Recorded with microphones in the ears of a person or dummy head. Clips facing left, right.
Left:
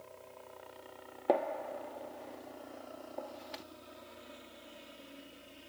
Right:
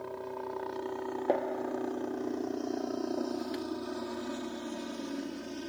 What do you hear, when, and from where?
0.0 s a helicopter: 70° right (ahead or behind)
1.3 s a gunshot: 10° right (ahead or behind)